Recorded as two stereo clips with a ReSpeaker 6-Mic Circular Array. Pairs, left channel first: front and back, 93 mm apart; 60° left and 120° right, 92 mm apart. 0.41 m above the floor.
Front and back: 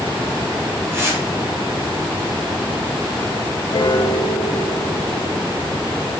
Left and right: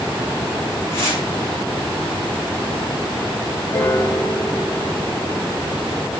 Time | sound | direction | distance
0.9 | tearing paper | 115° left | 7.5 m
3.7 | a piano | 10° left | 2.0 m